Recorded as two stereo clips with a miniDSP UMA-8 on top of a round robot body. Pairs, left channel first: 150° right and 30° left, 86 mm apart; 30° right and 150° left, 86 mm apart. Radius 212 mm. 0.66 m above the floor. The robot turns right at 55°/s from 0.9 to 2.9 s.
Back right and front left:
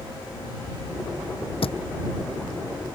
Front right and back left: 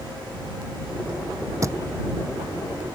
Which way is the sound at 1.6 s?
155° right.